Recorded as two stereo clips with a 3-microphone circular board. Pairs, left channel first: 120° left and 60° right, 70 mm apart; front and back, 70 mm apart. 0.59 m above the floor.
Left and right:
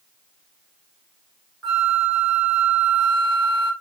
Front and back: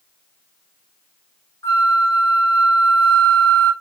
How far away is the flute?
About 1.8 m.